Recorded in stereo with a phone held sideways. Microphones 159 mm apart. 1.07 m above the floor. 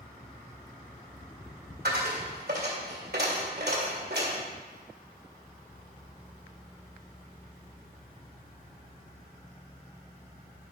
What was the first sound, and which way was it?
A dropped coin, 75° right (ahead or behind).